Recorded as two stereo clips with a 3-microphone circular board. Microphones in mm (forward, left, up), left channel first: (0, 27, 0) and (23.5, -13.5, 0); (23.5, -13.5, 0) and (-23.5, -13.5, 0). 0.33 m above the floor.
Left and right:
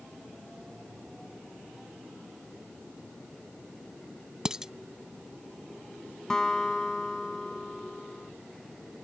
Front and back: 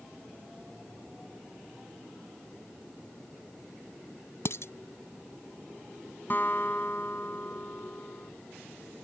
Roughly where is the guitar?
Ahead left.